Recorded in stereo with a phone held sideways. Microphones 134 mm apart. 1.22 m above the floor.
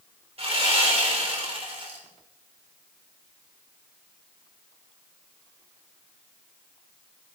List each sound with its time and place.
0.4 s sawing: 50° right (ahead or behind), 4 m